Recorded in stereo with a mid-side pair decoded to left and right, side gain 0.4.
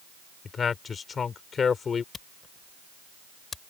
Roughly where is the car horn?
I don't hear a car horn.